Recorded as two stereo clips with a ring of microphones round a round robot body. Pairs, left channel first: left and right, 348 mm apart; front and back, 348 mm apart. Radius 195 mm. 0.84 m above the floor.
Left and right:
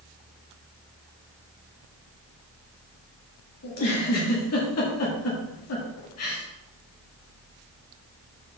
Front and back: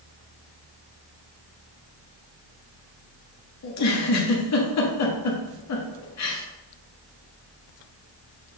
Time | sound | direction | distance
3.6 | a giggle | 40° left | 1.4 m